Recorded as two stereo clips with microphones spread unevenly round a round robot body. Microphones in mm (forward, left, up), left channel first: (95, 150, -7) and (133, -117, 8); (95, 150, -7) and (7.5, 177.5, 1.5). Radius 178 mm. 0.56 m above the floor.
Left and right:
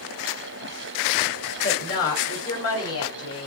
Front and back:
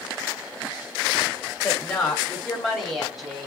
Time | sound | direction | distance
1.6 | a woman speaking | 60° left | 2.5 m